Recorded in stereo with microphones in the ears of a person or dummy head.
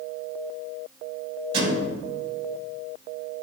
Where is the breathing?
No breathing in this recording.